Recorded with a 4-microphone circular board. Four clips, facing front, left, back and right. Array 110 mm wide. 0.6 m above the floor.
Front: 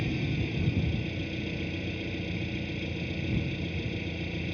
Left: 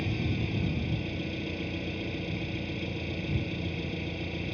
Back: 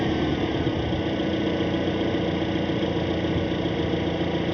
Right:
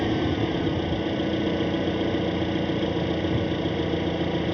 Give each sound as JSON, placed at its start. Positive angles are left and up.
{"t": 0.0, "sound": "an engine running", "azimuth_deg": -135}